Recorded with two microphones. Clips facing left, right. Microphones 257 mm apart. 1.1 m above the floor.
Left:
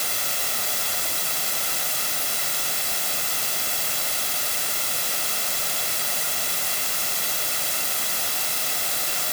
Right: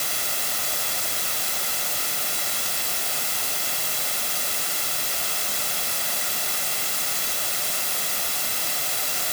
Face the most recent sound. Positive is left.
No sound to turn to.